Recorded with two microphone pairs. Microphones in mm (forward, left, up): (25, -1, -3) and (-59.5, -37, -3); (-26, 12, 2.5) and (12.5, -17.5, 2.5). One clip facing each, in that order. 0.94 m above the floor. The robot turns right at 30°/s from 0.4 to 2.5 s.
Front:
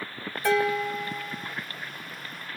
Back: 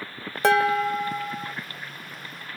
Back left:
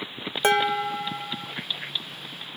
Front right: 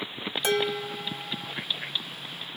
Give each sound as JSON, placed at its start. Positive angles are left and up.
{"t": 0.4, "sound": "dishes clattering", "azimuth_deg": -165, "distance_m": 0.8}